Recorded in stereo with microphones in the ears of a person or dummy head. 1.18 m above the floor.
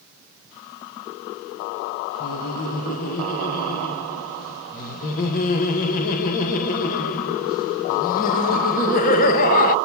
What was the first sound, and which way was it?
Laughter, 45° left (ahead or behind).